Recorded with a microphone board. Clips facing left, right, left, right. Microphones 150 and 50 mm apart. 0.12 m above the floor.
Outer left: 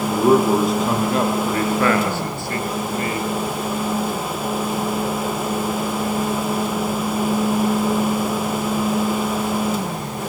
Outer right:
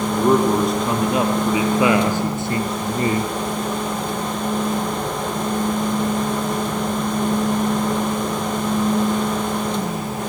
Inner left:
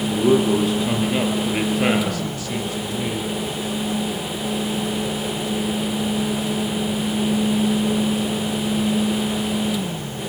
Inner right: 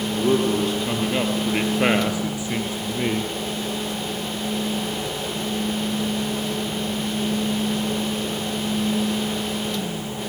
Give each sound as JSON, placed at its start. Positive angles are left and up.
{"t": 0.1, "sound": "a man speaking", "side_deg": 10, "distance_m": 3.5}